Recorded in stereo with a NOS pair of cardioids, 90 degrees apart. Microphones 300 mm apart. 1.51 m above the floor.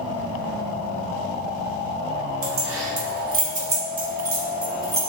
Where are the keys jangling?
50° right, 1.7 m; by 5.1 s 5° left, 1.9 m.